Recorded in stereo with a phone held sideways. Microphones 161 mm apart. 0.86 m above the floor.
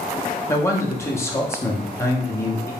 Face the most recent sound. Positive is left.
turn(degrees=15)  # may be behind; listen again after turning